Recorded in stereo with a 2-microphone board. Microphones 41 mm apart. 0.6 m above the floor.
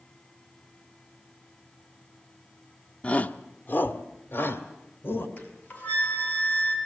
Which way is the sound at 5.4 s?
35° left (ahead or behind).